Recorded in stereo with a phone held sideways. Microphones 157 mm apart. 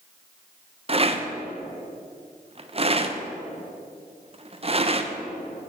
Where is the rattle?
40° right (ahead or behind), 0.6 m.